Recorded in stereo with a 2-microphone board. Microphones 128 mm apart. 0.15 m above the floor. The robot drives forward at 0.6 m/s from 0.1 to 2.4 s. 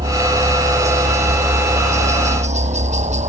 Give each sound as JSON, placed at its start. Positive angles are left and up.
{"t": 0.0, "sound": "a helicopter", "side_deg": -65}